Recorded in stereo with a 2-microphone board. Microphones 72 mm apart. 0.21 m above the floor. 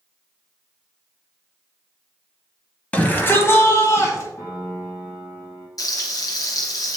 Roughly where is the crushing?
No crushing in this recording.